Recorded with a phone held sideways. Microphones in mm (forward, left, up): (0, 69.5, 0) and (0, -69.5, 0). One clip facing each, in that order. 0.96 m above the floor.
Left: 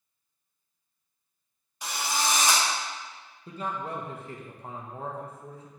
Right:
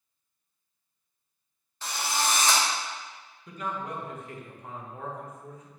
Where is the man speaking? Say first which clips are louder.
Left 1 dB; 30° left (ahead or behind), 0.7 m.